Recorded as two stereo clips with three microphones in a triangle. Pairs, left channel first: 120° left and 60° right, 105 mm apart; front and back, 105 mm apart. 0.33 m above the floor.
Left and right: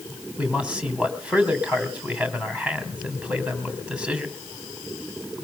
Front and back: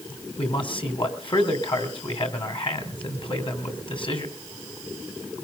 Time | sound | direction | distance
0.4 | a man speaking | 15° left | 3 m